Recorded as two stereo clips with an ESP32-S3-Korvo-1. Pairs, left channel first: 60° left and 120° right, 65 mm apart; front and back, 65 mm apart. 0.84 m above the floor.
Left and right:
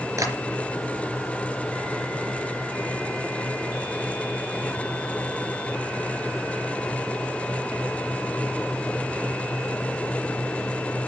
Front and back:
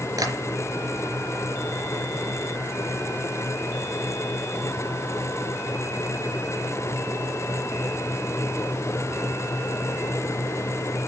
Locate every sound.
0.2 s tapping: 160° right, 4 m